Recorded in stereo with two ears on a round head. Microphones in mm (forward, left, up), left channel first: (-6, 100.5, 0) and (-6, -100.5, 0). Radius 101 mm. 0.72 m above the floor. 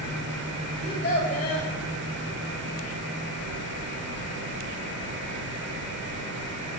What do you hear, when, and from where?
0.8 s a child speaking: 45° left (ahead or behind), 2 m